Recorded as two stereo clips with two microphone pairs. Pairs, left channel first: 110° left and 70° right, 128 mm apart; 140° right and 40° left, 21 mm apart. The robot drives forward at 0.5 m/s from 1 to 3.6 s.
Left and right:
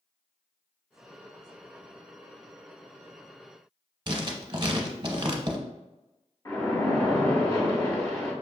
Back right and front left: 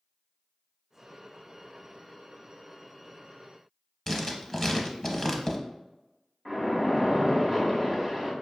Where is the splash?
140° left, 0.8 m.